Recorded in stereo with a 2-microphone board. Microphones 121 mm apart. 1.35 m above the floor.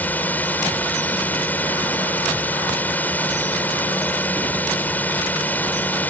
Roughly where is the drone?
Centre.